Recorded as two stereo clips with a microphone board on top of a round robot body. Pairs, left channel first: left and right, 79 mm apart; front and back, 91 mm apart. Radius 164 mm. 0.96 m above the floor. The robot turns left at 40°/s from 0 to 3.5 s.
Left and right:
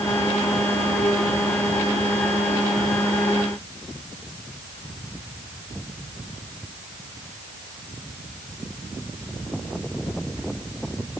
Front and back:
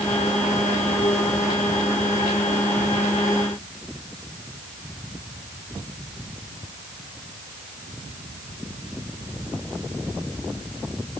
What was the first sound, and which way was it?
Only background noise.